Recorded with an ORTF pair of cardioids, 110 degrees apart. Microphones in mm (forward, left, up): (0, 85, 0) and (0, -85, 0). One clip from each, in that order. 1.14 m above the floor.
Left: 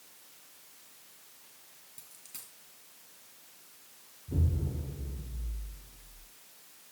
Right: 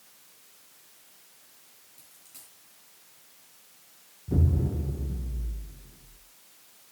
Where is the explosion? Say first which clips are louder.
Right 7 dB; 55° right, 2.0 m.